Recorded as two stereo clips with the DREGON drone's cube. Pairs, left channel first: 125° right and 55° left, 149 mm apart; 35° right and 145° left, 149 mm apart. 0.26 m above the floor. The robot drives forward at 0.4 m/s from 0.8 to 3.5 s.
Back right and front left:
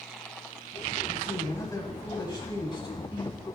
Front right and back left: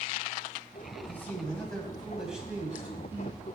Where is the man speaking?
80° right, 1.2 m; by 3.4 s 150° right, 1.5 m.